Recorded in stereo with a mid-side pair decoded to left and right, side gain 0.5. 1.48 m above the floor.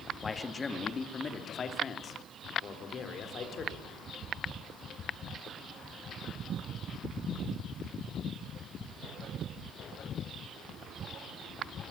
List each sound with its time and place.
0.2 s a man speaking: 25° left, 2 m; by 3.9 s 55° left, 4.5 m